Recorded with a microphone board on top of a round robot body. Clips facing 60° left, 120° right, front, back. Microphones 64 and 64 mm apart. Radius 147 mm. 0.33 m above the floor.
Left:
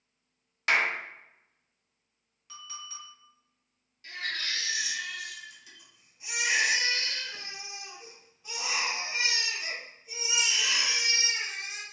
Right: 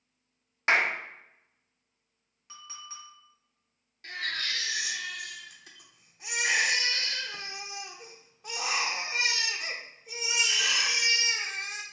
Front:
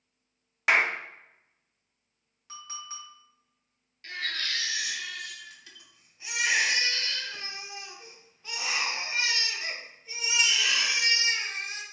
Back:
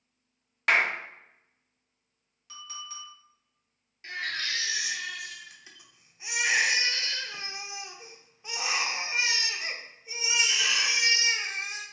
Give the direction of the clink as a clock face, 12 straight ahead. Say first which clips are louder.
Left 1 dB, front 1 dB; 2 o'clock.